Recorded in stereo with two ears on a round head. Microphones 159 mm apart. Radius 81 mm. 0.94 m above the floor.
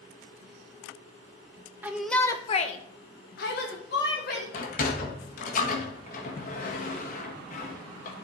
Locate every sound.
1.8 s a shout: 10° right (ahead or behind), 1.1 m; by 4.4 s 60° left (ahead or behind), 3 m
4.5 s a sliding door: 50° left (ahead or behind), 1.6 m